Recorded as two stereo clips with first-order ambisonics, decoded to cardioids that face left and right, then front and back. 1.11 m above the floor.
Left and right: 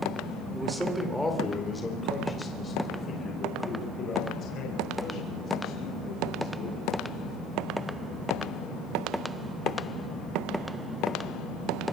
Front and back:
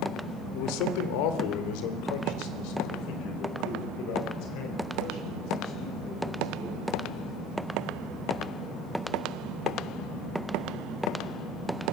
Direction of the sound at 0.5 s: 10° right.